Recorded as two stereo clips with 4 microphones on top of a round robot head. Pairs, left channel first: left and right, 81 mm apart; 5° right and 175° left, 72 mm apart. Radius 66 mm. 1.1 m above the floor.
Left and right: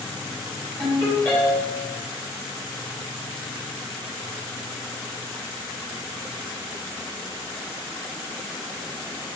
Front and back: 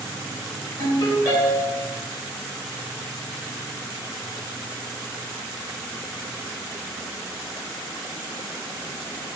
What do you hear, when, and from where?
0.8 s a ringtone: 20° left, 3.5 m